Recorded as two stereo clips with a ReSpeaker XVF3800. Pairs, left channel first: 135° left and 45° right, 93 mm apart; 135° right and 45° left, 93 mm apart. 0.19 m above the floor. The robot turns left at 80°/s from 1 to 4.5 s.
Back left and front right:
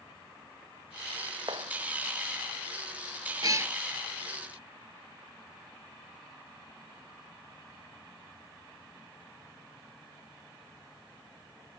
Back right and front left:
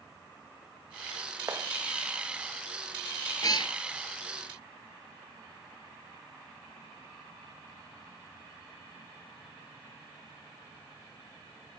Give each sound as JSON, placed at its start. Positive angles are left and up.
{"t": 1.5, "sound": "a clap", "azimuth_deg": -10}
{"t": 3.4, "sound": "a cat meowing", "azimuth_deg": -85}